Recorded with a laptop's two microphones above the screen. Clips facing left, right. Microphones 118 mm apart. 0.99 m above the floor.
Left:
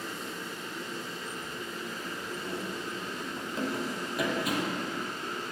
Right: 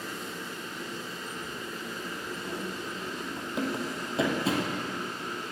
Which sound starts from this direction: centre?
Running footsteps, at 2.4 s.